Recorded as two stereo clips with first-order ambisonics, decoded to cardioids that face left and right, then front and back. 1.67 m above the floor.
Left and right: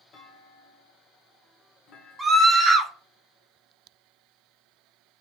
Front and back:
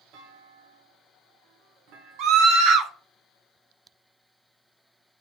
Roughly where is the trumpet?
No trumpet in this recording.